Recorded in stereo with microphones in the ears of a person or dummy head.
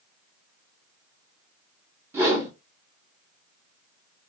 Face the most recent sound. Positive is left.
turn(degrees=-15)  # may be behind; listen again after turning